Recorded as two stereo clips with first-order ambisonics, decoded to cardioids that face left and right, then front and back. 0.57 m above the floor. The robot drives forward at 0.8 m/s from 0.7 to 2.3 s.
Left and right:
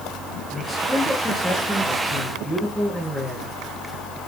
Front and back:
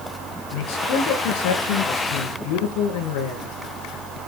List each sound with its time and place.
0.5 s a man speaking: 5° left, 9 m